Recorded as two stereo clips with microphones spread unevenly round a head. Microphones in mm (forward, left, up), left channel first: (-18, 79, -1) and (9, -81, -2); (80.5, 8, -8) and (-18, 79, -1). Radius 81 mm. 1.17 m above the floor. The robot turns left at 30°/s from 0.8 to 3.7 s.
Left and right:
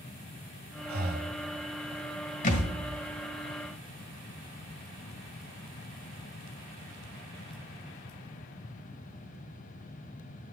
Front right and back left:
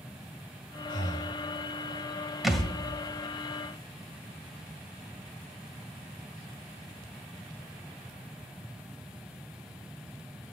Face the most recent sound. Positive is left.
turn(degrees=20)